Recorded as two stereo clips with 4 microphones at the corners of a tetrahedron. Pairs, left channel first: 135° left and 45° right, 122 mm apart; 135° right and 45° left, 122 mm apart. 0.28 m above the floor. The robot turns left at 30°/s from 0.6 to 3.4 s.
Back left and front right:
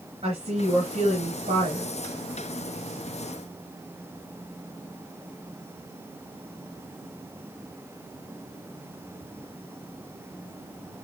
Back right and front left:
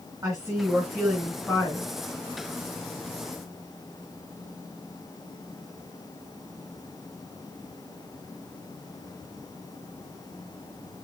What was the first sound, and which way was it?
A woman speaking, 20° right.